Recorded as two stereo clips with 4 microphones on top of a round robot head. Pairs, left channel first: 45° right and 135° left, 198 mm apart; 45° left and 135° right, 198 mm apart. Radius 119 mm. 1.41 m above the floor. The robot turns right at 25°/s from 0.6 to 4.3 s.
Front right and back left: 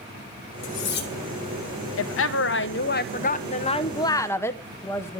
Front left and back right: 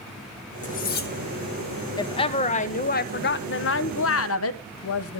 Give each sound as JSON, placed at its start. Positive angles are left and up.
{"t": 0.6, "sound": "cutlery clinking", "azimuth_deg": -10, "distance_m": 1.6}
{"t": 2.0, "sound": "a woman speaking", "azimuth_deg": -25, "distance_m": 0.9}